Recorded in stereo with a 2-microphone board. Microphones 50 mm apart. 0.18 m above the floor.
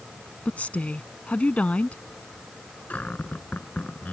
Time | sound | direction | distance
0.5 | a woman speaking | 30° left (ahead or behind) | ?
2.9 | a cupboard door | 35° left (ahead or behind) | ?